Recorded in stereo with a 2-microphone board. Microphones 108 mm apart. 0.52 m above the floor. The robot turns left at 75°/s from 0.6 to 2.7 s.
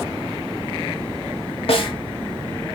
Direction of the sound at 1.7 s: 60° left (ahead or behind).